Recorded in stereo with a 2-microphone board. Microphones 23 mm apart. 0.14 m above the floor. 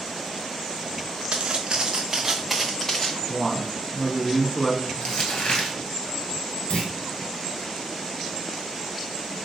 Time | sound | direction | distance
1.3 | footsteps | 55° right (ahead or behind) | 1.0 m
3.3 | a man speaking | 15° left (ahead or behind) | 1.1 m
5.0 | crumpling | 65° left (ahead or behind) | 1.7 m
6.7 | a clunk | 75° left (ahead or behind) | 1.2 m